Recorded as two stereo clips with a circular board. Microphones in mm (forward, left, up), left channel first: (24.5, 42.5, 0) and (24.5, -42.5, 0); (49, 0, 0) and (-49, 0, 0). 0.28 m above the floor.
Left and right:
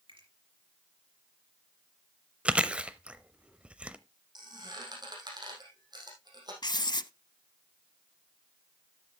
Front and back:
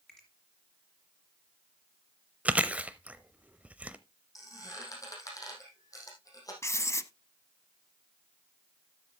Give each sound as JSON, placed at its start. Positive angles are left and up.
{"t": 0.1, "sound": "a finger snap", "azimuth_deg": -85, "distance_m": 4.5}
{"t": 2.5, "sound": "chewing", "azimuth_deg": -135, "distance_m": 0.7}
{"t": 4.3, "sound": "a squeak", "azimuth_deg": -55, "distance_m": 4.5}
{"t": 6.6, "sound": "writing", "azimuth_deg": 60, "distance_m": 0.5}